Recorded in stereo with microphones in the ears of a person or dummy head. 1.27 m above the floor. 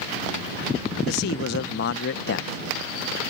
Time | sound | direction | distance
1.1 | a man speaking | 65° left (ahead or behind) | ?